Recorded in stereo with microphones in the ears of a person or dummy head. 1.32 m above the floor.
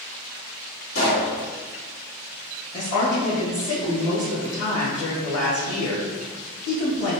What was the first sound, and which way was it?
A pop, 75° left (ahead or behind).